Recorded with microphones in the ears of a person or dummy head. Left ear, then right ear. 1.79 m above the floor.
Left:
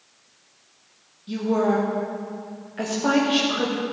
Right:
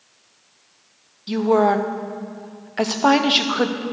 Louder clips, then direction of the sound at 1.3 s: Right 6 dB; 45° right (ahead or behind).